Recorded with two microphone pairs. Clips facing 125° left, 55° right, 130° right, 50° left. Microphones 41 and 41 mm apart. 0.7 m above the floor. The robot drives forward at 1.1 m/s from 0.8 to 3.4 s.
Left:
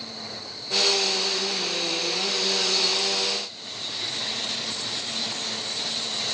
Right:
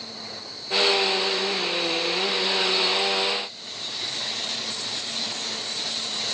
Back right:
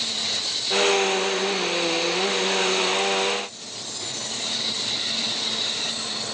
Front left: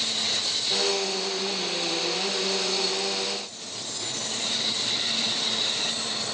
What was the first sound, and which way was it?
Only background noise.